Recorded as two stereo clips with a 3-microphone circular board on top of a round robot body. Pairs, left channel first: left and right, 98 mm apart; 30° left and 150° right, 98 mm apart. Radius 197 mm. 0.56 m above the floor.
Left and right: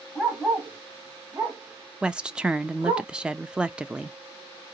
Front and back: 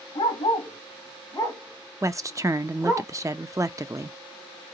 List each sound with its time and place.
0.1 s a dog barking: straight ahead, 2.5 m; by 3.0 s 70° right, 1.6 m
2.0 s a woman speaking: 165° right, 0.6 m